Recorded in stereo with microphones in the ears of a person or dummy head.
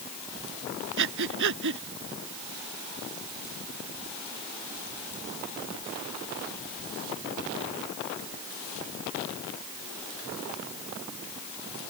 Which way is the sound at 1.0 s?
65° right (ahead or behind).